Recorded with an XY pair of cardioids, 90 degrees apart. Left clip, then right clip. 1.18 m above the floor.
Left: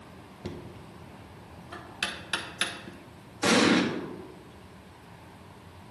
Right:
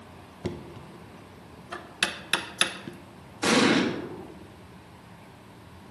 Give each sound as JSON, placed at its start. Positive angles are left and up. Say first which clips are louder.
{"t": 0.4, "sound": "knocking", "louder": "right 5 dB", "azimuth_deg": -50, "distance_m": 0.7}
{"t": 3.4, "sound": "an explosion", "louder": "right 1 dB", "azimuth_deg": 0, "distance_m": 1.5}